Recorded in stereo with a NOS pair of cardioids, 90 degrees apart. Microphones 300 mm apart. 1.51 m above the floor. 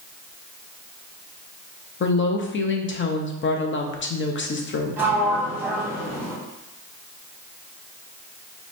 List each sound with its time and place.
2.0 s a woman speaking: 40° left, 0.9 m
5.0 s a sliding door: 5° right, 1.5 m